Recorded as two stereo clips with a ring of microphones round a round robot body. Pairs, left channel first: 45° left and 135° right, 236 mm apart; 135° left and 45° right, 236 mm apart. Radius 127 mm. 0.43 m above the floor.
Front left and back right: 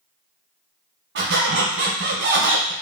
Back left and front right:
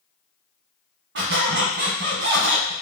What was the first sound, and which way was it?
A squeak, 90° right.